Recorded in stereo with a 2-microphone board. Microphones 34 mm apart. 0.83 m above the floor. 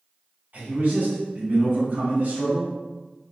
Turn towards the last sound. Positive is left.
turn(degrees=-60)  # may be behind; listen again after turning